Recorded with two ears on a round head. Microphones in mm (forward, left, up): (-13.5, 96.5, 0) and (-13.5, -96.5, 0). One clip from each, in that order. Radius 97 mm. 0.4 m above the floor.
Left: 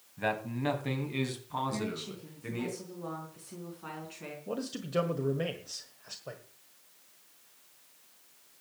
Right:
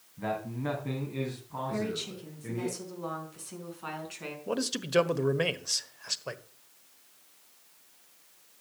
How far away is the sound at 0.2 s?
About 2.5 m.